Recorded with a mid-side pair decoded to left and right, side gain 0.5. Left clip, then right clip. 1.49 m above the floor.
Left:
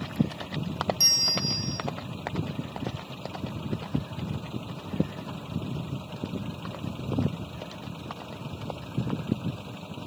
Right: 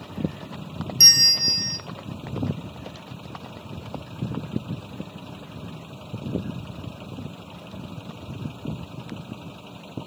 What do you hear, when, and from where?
1.0 s a bell: 55° right, 0.5 m